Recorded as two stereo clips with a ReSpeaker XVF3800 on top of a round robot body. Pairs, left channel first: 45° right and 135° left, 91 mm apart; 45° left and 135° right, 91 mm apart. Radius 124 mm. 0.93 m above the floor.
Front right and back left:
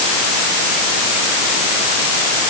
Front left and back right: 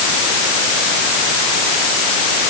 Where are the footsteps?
No footsteps in this recording.